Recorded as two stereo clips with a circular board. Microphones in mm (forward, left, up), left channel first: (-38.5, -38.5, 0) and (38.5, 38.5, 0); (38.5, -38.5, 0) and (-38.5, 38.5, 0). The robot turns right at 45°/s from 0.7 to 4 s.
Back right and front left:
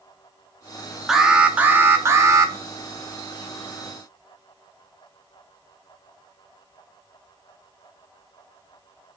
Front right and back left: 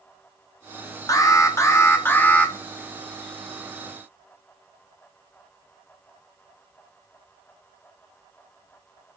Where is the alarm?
40° right, 0.5 m; by 2.5 s 25° left, 0.5 m.